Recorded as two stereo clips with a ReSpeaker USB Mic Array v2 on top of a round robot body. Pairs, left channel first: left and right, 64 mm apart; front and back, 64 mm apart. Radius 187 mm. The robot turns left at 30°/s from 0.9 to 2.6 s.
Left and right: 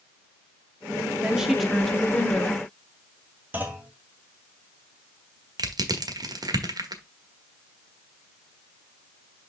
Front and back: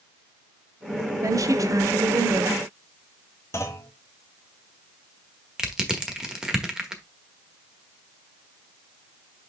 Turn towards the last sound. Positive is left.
turn(degrees=-100)